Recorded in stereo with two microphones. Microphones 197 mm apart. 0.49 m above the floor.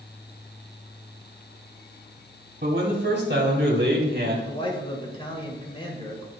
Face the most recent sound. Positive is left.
turn(degrees=25)  # may be behind; listen again after turning